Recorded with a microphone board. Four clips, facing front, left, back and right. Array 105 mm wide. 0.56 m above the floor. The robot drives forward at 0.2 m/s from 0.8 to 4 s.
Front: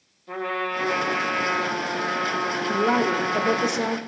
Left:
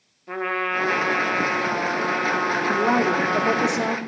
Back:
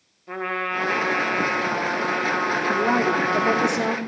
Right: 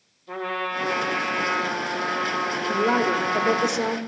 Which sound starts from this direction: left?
A woman speaking, at 2.7 s.